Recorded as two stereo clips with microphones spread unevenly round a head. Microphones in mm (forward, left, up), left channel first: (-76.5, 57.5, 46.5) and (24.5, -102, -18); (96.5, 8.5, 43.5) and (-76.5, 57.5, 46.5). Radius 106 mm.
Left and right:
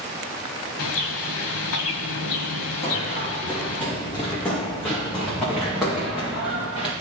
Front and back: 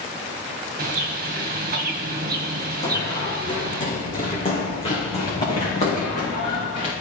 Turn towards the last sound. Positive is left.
turn(degrees=35)